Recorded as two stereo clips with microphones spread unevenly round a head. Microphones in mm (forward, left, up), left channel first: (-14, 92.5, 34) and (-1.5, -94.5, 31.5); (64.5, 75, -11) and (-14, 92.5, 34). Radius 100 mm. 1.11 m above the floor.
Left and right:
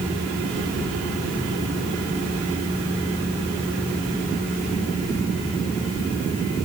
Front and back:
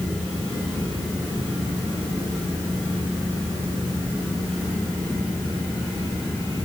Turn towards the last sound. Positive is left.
No sound to turn to.